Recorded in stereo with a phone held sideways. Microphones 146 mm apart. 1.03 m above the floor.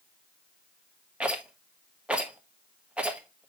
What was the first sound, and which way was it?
A rattle, 10° right (ahead or behind).